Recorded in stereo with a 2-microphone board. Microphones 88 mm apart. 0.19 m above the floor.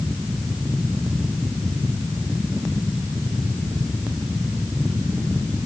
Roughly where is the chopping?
No chopping in this recording.